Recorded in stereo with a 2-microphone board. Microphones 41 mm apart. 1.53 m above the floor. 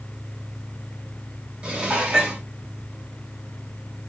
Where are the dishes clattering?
25° right (ahead or behind), 1.8 m.